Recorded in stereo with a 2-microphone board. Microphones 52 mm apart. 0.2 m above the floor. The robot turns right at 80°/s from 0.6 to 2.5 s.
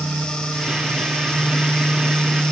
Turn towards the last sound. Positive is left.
No sound to turn to.